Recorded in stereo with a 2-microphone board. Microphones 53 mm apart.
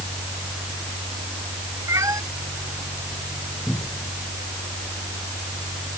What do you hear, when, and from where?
1.9 s a cat meowing: 80° right
3.7 s a cupboard door: 45° left (ahead or behind)